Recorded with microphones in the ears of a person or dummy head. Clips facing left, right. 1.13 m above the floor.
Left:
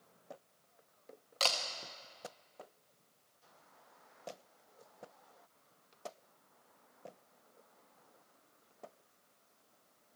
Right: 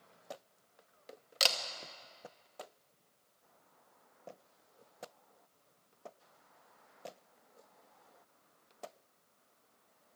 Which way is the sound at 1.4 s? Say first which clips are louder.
Even; 15° right (ahead or behind).